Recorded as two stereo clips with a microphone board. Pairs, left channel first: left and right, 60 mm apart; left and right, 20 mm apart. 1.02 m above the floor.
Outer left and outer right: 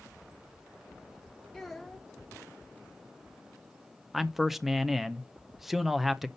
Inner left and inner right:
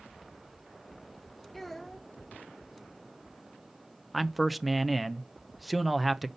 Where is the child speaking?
5° left (ahead or behind), 2 m.